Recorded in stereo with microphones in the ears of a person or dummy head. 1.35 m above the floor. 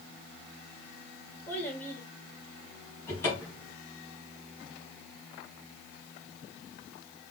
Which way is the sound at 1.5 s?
10° left (ahead or behind).